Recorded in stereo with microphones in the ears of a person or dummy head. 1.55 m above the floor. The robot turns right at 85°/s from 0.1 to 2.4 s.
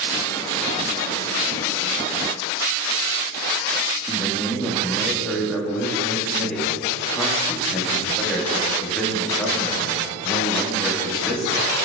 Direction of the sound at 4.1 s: 10° left (ahead or behind).